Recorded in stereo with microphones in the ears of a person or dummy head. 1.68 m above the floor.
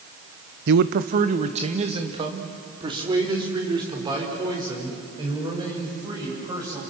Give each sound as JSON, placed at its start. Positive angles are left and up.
{"t": 0.7, "sound": "a man speaking", "side_deg": -60, "distance_m": 0.8}